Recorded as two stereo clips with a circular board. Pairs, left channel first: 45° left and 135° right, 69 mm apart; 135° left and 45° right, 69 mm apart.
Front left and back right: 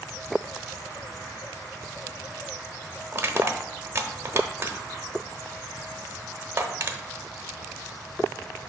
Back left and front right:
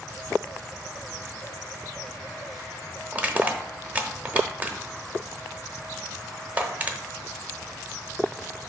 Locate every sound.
3.1 s crushing: 100° right, 0.8 m